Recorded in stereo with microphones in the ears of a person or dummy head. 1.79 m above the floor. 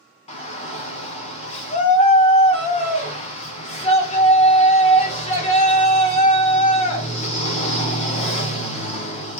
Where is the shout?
35° left (ahead or behind), 0.7 m.